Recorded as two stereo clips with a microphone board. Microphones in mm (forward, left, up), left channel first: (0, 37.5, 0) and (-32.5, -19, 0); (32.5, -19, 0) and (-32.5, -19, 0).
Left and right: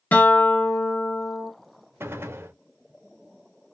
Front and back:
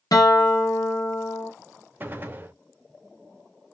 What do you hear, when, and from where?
0.1 s a guitar: straight ahead, 1.2 m
2.0 s a gunshot: 140° right, 0.6 m